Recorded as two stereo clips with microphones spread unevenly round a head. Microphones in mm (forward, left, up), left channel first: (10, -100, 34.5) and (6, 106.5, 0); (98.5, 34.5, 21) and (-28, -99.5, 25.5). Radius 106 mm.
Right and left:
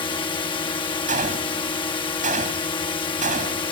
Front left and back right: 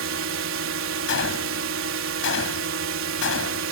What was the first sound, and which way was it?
A drone, 160° right.